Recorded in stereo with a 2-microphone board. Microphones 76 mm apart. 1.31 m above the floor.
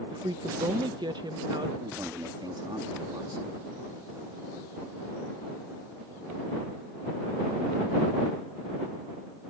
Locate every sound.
0.1 s a woman speaking: 70° right (ahead or behind); by 1.7 s 75° right (ahead or behind)
1.8 s a man speaking: 75° right (ahead or behind)